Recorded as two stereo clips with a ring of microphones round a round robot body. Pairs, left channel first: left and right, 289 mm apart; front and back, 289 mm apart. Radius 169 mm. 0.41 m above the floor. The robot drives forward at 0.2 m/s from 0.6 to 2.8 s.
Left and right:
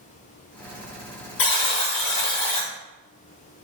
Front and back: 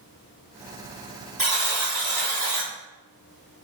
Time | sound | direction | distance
1.4 | a buzzer | 95° left | 2 m